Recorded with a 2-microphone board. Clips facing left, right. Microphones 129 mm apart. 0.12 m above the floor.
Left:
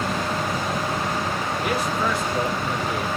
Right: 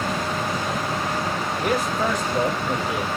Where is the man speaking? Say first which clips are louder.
Right 2 dB; 50° right (ahead or behind), 2.5 m; by 3.1 s 15° right (ahead or behind), 1.2 m.